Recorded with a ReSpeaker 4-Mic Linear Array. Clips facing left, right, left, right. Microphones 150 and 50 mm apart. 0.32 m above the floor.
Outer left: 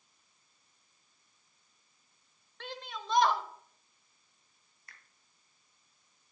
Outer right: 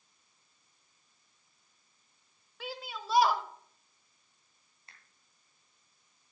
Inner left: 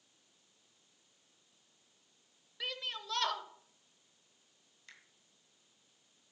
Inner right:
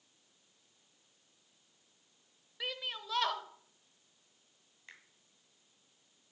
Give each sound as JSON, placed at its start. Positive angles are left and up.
{"t": 2.6, "sound": "a shout", "side_deg": -5, "distance_m": 1.0}
{"t": 4.9, "sound": "a finger snap", "side_deg": -25, "distance_m": 2.0}